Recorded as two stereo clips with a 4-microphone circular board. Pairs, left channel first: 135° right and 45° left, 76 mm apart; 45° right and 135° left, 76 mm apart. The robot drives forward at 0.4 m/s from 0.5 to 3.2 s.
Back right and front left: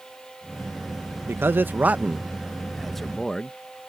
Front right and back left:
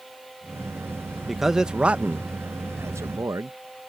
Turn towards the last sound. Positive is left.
turn(degrees=145)